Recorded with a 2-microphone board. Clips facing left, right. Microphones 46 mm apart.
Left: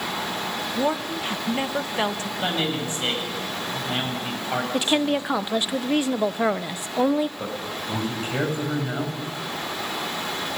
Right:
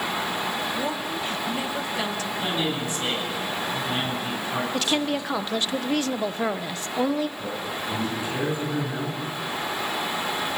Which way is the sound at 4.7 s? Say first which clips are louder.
Left 4 dB; 15° left (ahead or behind).